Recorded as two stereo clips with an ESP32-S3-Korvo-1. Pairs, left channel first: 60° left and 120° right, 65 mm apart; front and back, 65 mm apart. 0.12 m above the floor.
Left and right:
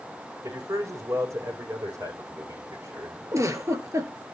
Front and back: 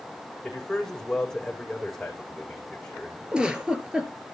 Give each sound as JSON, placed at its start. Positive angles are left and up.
{"t": 0.4, "sound": "a man speaking", "azimuth_deg": -85, "distance_m": 6.0}
{"t": 3.3, "sound": "a giggle", "azimuth_deg": -110, "distance_m": 2.5}